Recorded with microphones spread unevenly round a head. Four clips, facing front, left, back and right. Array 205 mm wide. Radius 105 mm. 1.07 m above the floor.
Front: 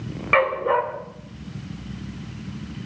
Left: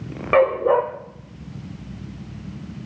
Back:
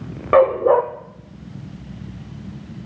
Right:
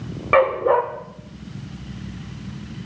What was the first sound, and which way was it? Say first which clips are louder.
A dog barking: even, back 7 dB; 170° left.